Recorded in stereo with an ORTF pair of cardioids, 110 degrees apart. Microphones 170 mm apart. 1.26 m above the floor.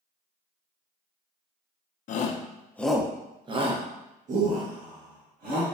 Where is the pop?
I don't hear a pop.